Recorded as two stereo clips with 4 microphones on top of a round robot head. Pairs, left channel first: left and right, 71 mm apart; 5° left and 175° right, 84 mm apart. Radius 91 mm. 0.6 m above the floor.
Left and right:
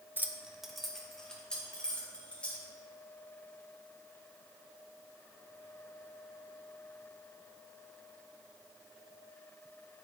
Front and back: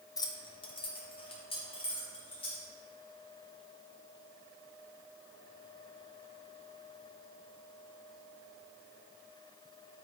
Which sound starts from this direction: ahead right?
Keys jangling, at 0.2 s.